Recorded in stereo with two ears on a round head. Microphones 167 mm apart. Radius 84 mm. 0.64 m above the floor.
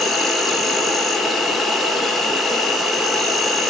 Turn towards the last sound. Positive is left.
turn(degrees=0)  # may be behind; listen again after turning